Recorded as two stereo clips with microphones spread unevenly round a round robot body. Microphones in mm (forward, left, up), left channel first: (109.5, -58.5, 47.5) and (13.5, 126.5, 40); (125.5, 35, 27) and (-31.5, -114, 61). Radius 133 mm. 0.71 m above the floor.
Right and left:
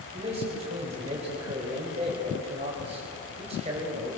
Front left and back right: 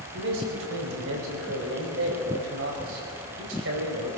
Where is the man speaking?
175° right, 5 m.